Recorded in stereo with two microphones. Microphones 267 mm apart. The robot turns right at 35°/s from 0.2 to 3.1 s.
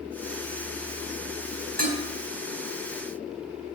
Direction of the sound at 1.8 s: 75° left (ahead or behind).